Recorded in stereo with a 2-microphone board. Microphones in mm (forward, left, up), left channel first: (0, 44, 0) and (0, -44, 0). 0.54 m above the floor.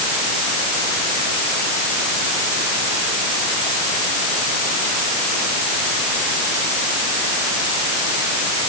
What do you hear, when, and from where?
Only background noise.